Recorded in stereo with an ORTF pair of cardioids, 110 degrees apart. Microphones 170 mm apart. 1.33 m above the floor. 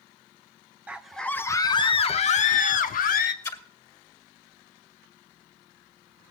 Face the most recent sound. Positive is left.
turn(degrees=20)